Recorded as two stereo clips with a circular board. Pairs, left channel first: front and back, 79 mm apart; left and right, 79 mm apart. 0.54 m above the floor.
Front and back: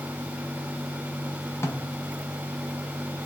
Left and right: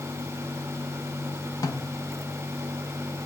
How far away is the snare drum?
About 0.8 m.